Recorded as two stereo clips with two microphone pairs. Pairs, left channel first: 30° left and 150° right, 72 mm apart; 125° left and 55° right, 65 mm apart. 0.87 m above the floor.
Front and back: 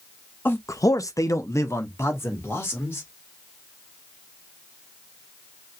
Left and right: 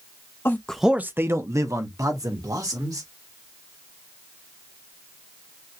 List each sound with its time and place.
0.5 s a man speaking: 80° left, 0.5 m; by 3.1 s 30° right, 3 m